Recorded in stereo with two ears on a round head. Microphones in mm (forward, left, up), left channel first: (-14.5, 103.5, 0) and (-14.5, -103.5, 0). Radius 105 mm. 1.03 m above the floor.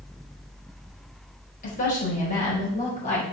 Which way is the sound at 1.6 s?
40° left (ahead or behind).